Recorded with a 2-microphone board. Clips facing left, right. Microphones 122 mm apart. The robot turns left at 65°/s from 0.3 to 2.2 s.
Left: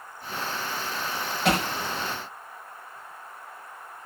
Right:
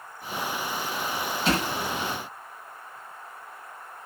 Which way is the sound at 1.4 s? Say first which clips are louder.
Left 2 dB; 80° left.